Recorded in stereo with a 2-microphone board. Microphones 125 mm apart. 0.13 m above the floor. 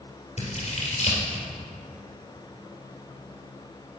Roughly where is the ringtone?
I don't hear a ringtone.